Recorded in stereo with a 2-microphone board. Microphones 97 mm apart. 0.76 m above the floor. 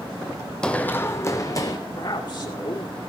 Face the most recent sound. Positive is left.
turn(degrees=55)  # may be behind; listen again after turning